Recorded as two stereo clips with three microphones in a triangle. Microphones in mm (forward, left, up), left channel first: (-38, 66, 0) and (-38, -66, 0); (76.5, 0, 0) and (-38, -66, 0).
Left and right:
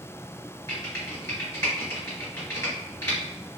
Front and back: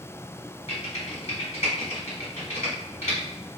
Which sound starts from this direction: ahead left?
Typing on a keyboard, at 0.7 s.